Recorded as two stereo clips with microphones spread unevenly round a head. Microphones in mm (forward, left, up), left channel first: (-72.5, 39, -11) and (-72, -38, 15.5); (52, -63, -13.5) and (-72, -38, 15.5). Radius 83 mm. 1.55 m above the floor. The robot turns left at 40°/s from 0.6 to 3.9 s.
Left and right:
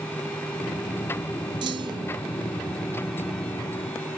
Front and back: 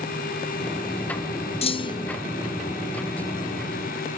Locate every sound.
1.6 s a clunk: 60° right, 0.5 m; by 2.2 s 85° right, 0.5 m